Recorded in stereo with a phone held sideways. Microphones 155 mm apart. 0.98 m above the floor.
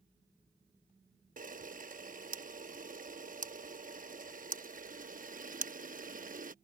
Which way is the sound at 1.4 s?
60° right (ahead or behind).